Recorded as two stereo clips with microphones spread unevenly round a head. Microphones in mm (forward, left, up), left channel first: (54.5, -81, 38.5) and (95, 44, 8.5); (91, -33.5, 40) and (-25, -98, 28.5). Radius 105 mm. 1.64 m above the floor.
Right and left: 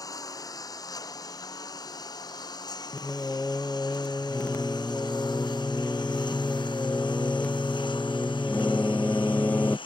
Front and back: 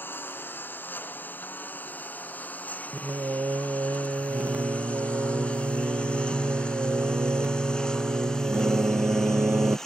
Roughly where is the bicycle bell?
No bicycle bell in this recording.